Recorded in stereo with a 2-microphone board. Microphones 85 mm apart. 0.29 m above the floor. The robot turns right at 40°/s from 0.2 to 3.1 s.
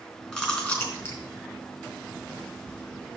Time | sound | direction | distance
0.3 | chewing | 10° left (ahead or behind) | 3.5 m